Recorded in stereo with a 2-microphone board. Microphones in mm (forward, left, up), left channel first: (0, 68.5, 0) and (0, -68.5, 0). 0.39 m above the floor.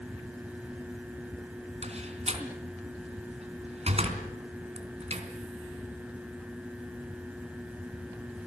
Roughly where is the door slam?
Right.